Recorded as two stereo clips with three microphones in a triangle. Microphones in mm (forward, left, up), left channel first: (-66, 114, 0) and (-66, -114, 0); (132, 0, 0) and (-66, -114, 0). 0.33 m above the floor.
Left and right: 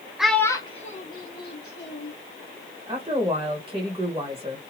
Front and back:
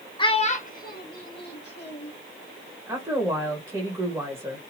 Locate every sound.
0.2 s a child speaking: 5° right, 0.5 m; by 2.1 s 65° left, 1.2 m
2.9 s a woman speaking: 90° right, 1.5 m